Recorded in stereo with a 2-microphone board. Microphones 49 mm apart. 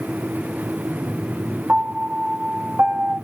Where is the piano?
60° right (ahead or behind), 0.6 m.